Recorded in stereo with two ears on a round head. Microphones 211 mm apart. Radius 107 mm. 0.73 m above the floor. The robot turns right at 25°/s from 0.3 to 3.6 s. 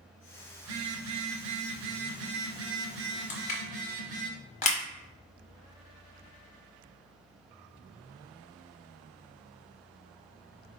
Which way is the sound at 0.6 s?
110° right.